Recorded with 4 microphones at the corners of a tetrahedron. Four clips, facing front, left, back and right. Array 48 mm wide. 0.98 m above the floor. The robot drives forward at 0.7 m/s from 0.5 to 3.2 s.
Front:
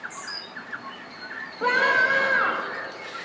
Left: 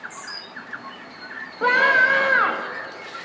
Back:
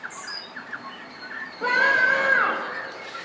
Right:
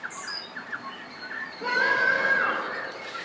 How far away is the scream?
About 2 m.